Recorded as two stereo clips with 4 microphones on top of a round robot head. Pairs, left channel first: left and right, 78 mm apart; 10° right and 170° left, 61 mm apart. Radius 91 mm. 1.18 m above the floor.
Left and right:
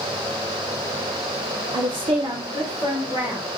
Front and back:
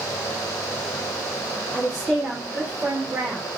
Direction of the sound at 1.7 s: 80° right.